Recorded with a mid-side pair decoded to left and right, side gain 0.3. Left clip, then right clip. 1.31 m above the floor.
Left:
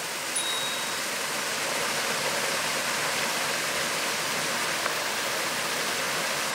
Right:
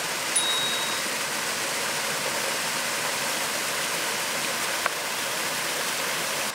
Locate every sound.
0.3 s a bicycle bell: 60° right, 7.5 m